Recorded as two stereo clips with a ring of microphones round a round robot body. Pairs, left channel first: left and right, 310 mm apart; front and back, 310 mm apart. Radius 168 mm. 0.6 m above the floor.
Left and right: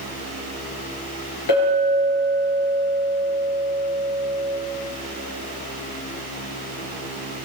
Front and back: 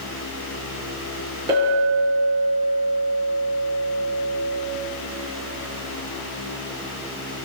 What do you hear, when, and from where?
1.5 s a clink: 100° left, 7.5 m